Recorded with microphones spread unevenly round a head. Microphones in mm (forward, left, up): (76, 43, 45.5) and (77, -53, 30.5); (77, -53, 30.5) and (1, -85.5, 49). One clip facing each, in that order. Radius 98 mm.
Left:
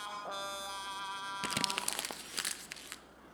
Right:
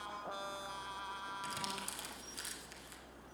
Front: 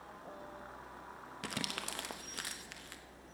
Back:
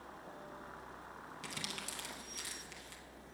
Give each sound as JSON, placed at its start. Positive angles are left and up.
{"t": 1.4, "sound": "crumpling", "azimuth_deg": 75, "distance_m": 0.5}